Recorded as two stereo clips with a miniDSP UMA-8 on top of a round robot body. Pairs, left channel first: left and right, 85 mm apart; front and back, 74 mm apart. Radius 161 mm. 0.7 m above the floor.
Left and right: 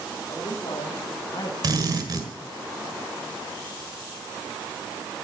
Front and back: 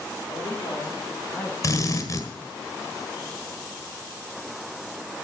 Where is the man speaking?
60° left, 2 m; by 1.5 s 55° left, 1.3 m.